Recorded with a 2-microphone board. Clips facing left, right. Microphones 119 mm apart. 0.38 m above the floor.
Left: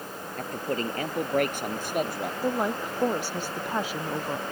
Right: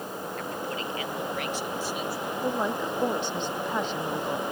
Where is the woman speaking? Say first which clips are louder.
Left 1 dB; 10° left (ahead or behind).